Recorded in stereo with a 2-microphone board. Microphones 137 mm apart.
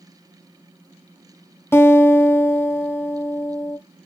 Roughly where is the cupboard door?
No cupboard door in this recording.